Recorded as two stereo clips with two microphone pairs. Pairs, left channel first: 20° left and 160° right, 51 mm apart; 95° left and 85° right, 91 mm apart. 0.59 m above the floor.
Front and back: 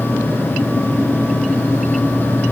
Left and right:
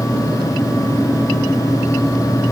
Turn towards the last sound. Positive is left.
No sound to turn to.